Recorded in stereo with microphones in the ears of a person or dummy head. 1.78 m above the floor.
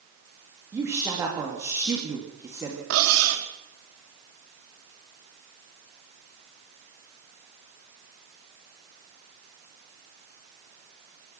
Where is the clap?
No clap in this recording.